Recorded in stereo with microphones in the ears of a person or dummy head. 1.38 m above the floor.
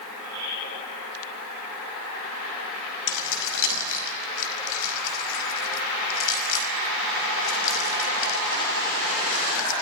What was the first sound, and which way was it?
Keys jangling, 70° left (ahead or behind).